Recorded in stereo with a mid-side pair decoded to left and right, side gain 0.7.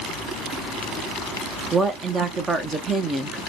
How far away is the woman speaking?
About 0.6 m.